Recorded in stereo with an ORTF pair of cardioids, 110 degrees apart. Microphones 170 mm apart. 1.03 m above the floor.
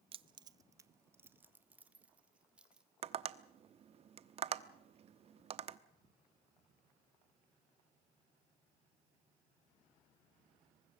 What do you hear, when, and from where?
0.1 s keys jangling: 35° right, 0.6 m; by 2.9 s 5° right, 2.5 m
3.0 s tapping: 40° right, 1.0 m